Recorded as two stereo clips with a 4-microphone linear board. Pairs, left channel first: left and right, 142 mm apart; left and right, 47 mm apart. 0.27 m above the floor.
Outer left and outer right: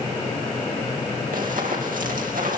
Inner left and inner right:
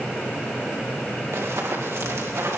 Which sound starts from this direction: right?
Running footsteps, at 1.3 s.